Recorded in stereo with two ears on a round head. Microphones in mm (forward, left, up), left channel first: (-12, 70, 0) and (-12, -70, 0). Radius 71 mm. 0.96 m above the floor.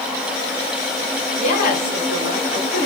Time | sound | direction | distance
1.4 | a woman speaking | 55° left (ahead or behind) | 2.5 m